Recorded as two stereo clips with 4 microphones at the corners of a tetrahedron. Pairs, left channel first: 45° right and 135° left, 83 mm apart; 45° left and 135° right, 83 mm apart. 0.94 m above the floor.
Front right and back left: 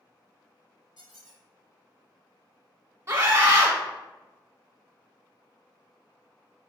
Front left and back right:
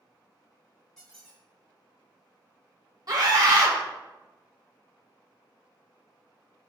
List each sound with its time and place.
1.0 s a squeak: 125° left, 2 m
3.1 s a scream: 175° right, 1.7 m